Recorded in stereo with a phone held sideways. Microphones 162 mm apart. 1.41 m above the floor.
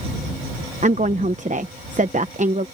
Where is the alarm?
I don't hear an alarm.